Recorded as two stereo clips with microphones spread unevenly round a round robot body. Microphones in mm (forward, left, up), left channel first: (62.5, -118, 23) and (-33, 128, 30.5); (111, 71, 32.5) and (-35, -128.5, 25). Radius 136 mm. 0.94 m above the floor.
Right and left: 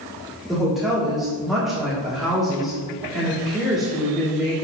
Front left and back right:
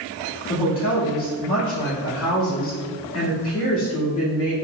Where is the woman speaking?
20° left, 1.9 m.